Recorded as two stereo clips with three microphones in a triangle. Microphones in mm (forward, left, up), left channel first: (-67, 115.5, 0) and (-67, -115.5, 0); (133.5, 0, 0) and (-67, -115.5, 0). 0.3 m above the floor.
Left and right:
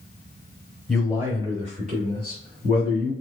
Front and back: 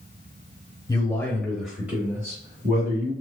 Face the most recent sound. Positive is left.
turn(degrees=-85)